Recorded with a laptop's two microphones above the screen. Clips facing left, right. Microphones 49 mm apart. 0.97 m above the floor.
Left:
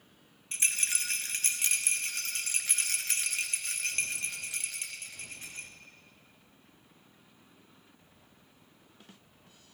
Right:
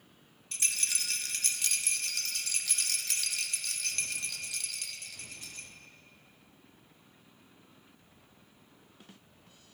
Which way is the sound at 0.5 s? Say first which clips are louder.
Left 3 dB; 30° left (ahead or behind).